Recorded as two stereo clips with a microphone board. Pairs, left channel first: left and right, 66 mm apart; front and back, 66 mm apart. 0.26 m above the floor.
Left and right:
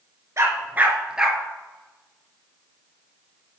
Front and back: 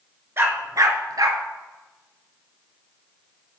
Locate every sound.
0.4 s a dog barking: 130° right, 0.8 m; by 1.4 s 175° right, 1.1 m